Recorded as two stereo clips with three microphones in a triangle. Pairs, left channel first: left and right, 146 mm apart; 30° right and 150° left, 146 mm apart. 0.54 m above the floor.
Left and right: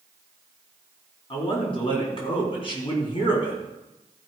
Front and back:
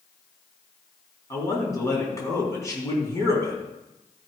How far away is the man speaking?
About 4 m.